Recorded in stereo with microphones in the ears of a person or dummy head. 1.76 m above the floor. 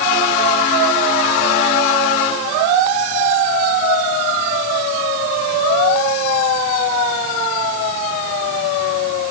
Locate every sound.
Only background noise.